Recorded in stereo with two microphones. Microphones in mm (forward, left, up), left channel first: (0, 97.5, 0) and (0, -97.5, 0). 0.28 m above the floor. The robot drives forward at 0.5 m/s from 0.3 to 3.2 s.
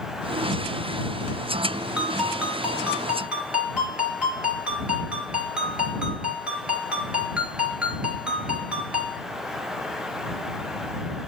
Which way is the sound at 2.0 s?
5° right (ahead or behind).